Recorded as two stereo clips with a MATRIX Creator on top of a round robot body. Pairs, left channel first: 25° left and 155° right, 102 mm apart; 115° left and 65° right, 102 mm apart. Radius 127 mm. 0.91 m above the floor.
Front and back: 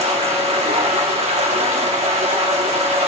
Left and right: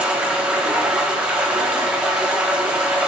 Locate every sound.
0.0 s running water: 145° right, 1.4 m